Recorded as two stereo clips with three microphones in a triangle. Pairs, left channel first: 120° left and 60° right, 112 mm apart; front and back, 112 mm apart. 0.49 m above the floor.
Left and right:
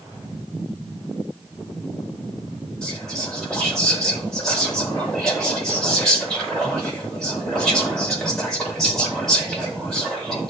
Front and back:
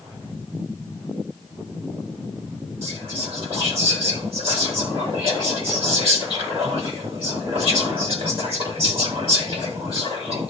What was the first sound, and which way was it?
Whispering, 155° right.